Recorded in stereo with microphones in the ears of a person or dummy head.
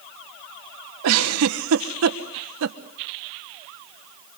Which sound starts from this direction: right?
A giggle, at 1.0 s.